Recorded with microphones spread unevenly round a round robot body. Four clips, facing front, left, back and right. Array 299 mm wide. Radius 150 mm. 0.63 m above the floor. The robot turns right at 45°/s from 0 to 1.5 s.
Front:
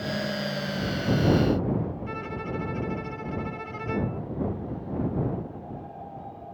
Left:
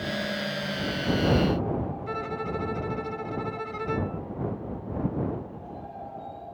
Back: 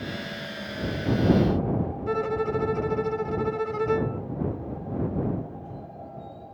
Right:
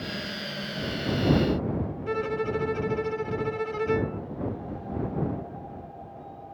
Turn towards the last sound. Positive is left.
turn(degrees=-150)